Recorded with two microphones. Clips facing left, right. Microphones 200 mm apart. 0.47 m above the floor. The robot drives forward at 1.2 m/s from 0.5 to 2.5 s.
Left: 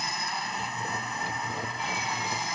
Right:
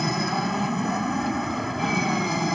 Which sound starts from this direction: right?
An aircraft, at 0.0 s.